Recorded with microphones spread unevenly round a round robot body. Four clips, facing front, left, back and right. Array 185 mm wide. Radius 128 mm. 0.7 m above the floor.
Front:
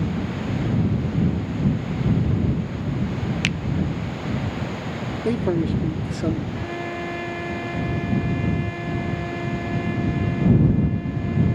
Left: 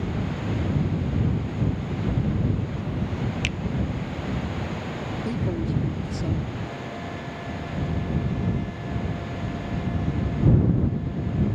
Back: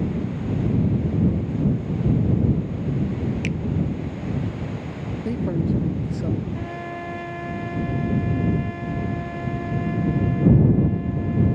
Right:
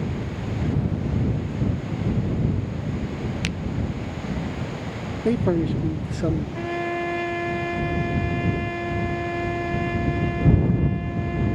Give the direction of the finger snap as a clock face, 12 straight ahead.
12 o'clock.